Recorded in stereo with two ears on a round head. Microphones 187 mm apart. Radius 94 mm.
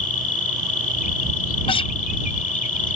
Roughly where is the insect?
Left.